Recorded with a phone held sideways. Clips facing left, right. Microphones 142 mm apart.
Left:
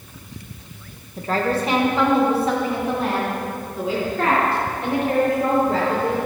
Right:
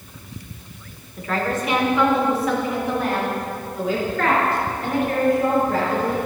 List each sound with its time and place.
1.2 s a woman speaking: 35° left (ahead or behind), 0.9 m; by 6.2 s 30° left (ahead or behind), 5 m